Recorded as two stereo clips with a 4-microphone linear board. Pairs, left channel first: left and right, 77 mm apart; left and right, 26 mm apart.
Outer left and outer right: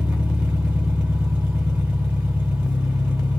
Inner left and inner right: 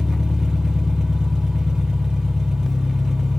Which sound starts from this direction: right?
An engine running, at 0.0 s.